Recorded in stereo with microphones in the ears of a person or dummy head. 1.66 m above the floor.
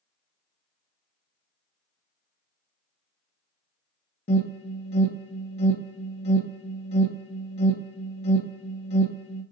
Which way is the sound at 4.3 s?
35° left (ahead or behind).